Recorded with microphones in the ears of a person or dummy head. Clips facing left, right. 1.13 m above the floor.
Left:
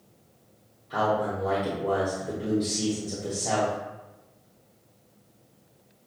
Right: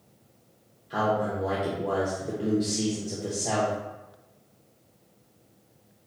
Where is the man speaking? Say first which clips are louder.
Even; 10° right (ahead or behind), 0.9 m.